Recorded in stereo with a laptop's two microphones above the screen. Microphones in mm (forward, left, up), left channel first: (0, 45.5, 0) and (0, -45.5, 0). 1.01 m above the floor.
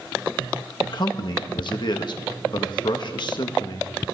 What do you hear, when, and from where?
0.8 s a man speaking: 55° left (ahead or behind), 1.4 m